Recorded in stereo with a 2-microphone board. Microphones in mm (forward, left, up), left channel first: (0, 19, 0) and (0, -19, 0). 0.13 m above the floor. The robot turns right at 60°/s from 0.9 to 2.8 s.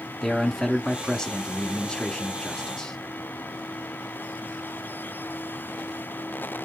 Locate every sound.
0.2 s a man speaking: 10° left (ahead or behind), 1.2 m; by 3.0 s 15° left (ahead or behind), 1.2 m